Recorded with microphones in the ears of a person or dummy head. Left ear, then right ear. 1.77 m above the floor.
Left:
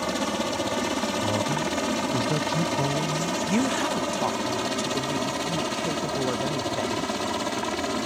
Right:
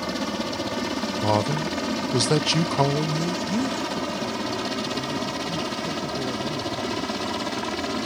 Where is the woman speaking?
35° left (ahead or behind).